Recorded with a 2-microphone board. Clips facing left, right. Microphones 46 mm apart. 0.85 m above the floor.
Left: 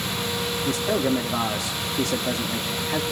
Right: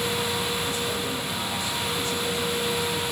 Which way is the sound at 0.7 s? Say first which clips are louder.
Left 5 dB; 50° left (ahead or behind).